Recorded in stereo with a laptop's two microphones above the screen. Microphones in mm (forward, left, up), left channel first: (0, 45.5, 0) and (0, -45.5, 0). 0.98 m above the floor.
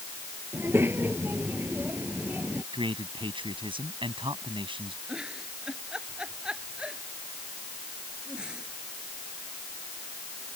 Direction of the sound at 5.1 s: 10° right (ahead or behind).